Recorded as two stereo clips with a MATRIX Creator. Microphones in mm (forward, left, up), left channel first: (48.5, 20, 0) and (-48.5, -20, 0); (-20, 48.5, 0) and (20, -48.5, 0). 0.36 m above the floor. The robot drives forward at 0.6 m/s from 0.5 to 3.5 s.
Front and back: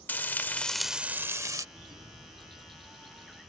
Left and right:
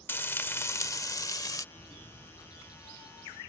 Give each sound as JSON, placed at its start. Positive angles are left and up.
{"t": 0.1, "sound": "frying", "azimuth_deg": 75}
{"t": 1.8, "sound": "a bird", "azimuth_deg": 160}